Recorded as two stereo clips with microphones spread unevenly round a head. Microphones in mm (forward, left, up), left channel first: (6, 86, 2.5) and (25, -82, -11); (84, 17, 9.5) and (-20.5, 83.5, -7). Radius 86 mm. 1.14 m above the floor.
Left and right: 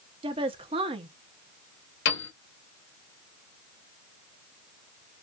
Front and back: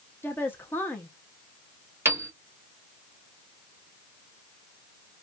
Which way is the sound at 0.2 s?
110° right.